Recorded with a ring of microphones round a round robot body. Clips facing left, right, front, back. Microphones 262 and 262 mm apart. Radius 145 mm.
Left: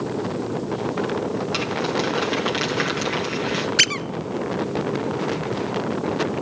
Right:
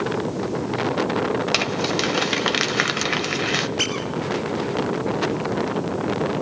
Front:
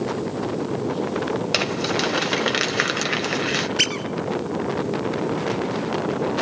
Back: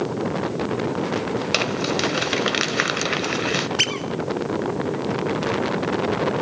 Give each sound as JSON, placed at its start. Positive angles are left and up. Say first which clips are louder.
{"t": 1.5, "sound": "crumpling", "louder": "even, even", "azimuth_deg": -95, "distance_m": 1.8}
{"t": 3.8, "sound": "a squeak", "louder": "right 2 dB, even", "azimuth_deg": 90, "distance_m": 0.9}